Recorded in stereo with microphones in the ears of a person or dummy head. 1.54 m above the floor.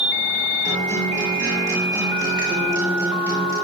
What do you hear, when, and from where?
0.6 s a guitar: 20° right (ahead or behind), 7 m